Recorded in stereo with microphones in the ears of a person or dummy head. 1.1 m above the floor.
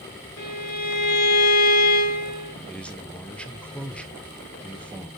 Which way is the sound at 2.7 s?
Centre (ahead or behind).